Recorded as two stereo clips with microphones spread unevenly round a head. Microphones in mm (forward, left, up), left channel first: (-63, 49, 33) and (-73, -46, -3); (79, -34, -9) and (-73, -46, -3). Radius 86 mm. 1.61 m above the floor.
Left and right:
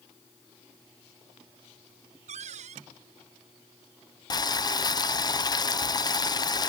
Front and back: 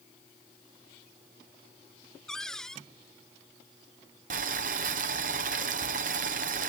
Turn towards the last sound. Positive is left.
turn(degrees=135)